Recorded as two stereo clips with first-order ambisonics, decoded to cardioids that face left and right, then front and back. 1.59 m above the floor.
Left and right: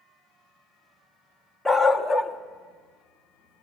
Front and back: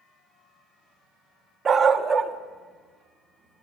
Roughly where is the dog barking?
Behind.